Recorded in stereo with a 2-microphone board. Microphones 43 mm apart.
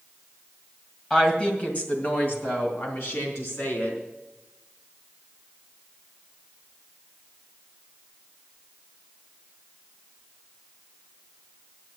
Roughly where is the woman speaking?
Left.